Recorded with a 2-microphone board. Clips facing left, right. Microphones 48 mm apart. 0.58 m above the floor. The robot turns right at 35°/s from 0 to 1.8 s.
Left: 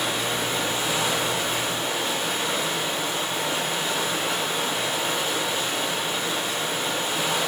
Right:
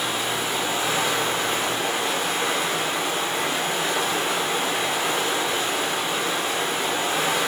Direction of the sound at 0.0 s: Straight behind.